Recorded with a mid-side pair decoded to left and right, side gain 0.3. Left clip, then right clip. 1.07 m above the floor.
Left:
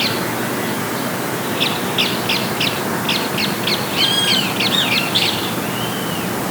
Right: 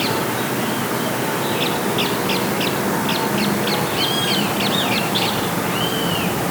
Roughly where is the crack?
I don't hear a crack.